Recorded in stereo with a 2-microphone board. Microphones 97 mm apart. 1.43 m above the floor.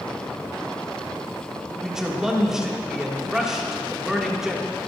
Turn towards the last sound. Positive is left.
turn(degrees=-5)  # may be behind; listen again after turning